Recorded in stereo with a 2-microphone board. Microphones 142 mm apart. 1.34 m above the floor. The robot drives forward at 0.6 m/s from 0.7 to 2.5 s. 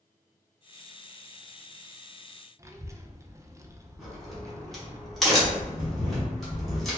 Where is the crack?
Centre (ahead or behind), 1.2 m.